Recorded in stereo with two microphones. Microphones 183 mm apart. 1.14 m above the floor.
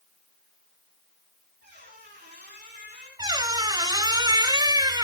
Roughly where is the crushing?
No crushing in this recording.